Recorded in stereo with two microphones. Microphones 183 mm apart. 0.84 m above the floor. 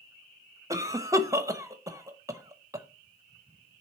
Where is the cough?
15° right (ahead or behind), 0.9 m.